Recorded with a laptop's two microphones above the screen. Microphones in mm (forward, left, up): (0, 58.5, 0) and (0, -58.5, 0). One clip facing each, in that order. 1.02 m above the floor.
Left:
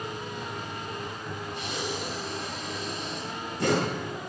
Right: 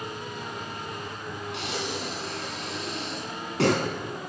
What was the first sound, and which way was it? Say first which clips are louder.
Breathing: right 1 dB; 75° right (ahead or behind).